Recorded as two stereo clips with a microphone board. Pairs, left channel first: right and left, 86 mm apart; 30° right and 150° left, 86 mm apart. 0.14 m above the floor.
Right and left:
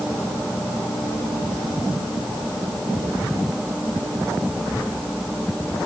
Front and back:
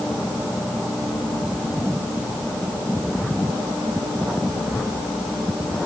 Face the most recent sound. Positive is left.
No sound to turn to.